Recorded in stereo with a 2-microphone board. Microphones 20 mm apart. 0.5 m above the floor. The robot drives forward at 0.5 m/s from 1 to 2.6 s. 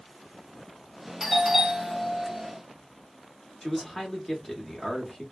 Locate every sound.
1.2 s a doorbell: 5° right (ahead or behind), 1.4 m
3.6 s a man speaking: 25° left (ahead or behind), 1.0 m